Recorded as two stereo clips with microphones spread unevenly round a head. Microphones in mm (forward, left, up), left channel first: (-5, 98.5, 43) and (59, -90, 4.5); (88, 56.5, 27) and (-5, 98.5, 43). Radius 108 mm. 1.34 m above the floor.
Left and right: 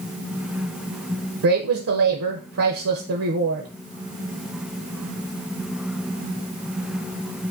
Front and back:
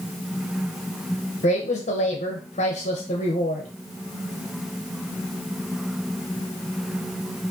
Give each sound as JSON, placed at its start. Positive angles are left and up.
{"t": 1.4, "sound": "a woman speaking", "azimuth_deg": -60, "distance_m": 0.6}